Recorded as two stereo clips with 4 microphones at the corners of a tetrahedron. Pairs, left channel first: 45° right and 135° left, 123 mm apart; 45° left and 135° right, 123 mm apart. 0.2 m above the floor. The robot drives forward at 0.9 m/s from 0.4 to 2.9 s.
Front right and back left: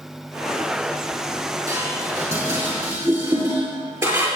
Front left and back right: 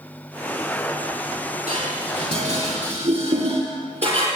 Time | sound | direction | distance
1.7 | dishes clattering | 160° right | 6 m